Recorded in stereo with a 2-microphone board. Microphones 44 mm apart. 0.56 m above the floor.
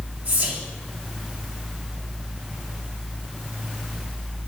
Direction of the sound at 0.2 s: 30° right (ahead or behind).